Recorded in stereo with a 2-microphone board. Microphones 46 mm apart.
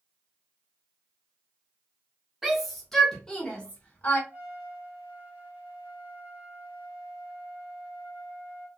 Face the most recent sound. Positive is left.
turn(degrees=-35)  # may be behind; listen again after turning